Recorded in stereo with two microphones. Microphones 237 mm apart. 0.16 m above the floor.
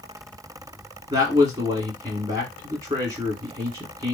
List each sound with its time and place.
1.1 s a man speaking: 15° right (ahead or behind), 1.8 m